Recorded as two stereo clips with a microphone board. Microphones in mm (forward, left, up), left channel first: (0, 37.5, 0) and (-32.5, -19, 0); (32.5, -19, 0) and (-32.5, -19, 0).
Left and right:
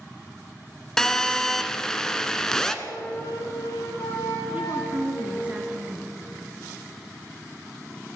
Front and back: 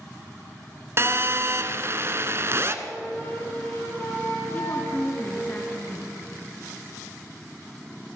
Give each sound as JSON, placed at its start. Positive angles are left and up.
{"t": 1.0, "sound": "a phone buzzing", "azimuth_deg": 140, "distance_m": 1.2}
{"t": 2.9, "sound": "a flute", "azimuth_deg": 60, "distance_m": 4.5}
{"t": 4.5, "sound": "a woman speaking", "azimuth_deg": -60, "distance_m": 2.5}